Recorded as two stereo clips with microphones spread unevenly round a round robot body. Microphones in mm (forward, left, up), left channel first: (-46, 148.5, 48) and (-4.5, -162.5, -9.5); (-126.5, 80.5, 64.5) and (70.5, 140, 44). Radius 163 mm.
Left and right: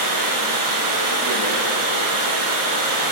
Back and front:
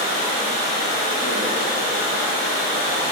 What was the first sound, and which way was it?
Running water, 100° right.